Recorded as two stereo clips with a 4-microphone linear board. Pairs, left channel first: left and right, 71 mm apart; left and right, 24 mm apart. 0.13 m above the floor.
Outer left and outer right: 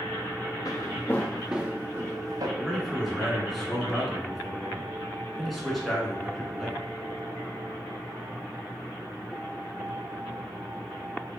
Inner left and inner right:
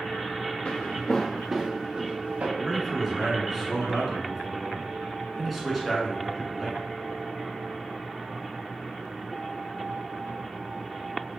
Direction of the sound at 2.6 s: Centre (ahead or behind).